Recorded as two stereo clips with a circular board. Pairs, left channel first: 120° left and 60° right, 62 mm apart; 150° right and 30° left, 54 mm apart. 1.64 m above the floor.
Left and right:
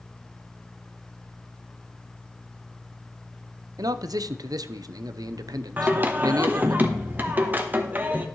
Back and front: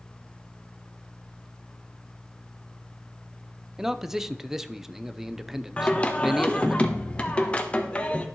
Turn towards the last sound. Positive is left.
turn(degrees=-100)